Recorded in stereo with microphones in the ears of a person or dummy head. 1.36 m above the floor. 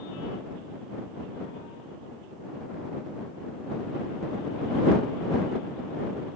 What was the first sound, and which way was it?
Only background noise.